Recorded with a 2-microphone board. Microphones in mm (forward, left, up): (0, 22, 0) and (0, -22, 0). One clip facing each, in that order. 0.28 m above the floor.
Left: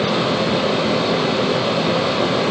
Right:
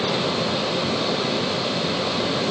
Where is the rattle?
I don't hear a rattle.